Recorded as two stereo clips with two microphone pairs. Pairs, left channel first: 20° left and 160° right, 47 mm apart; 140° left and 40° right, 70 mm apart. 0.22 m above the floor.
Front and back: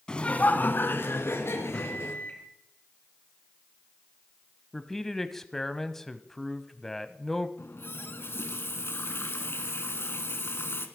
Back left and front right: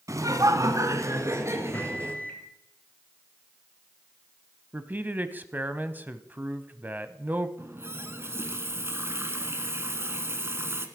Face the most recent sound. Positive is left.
turn(degrees=5)